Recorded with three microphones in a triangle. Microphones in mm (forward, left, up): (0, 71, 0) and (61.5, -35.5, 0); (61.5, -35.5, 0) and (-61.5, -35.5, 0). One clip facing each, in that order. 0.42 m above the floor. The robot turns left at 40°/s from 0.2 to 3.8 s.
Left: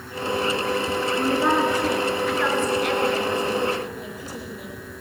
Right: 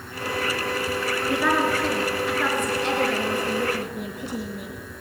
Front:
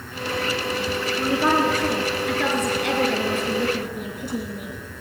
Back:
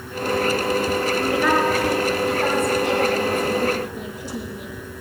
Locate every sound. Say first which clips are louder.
1.2 s a woman speaking: left 2 dB, front 1 dB; 70° left, 5.5 m; by 4.8 s 35° right, 5.5 m